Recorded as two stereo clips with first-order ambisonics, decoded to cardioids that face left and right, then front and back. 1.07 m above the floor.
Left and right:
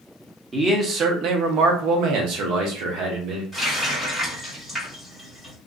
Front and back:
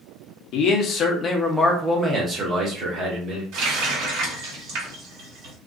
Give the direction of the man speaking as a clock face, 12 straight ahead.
1 o'clock.